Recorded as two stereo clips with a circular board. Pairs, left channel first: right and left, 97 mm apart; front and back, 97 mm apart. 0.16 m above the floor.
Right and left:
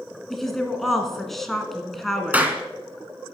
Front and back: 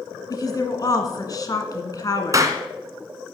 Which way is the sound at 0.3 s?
5° right.